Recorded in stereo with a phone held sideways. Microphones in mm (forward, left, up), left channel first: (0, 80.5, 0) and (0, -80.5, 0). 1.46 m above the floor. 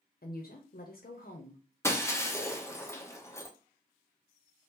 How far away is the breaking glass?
About 0.6 m.